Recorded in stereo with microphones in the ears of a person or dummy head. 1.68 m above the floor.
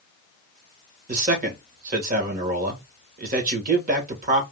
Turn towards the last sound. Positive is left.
turn(degrees=-45)  # may be behind; listen again after turning